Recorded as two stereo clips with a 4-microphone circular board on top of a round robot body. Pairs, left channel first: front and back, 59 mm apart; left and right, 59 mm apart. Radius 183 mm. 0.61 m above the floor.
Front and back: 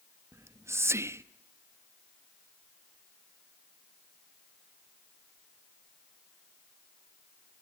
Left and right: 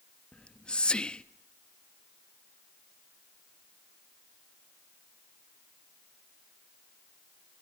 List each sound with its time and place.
0.3 s whispering: 160° left, 0.8 m